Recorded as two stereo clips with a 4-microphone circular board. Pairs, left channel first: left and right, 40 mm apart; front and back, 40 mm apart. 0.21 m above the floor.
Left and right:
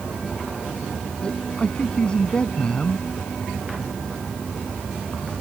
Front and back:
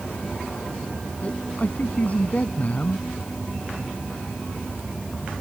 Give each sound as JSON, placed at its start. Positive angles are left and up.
{"t": 1.2, "sound": "a man speaking", "azimuth_deg": 35}